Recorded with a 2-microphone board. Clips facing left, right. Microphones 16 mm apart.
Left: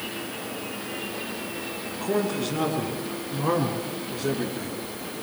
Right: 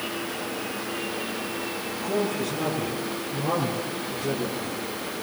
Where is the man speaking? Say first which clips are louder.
Left 1 dB; 80° left, 6 m; by 4.8 s 40° left (ahead or behind), 6 m.